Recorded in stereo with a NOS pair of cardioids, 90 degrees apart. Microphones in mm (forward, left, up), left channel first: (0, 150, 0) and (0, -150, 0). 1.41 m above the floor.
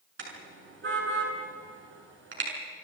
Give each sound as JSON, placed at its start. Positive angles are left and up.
{"t": 0.2, "sound": "a car horn", "azimuth_deg": -40, "distance_m": 7.0}